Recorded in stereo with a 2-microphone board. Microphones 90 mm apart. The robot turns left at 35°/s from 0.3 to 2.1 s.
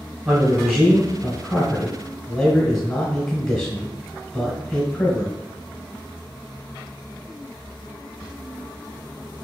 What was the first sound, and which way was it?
A man speaking, 15° right (ahead or behind).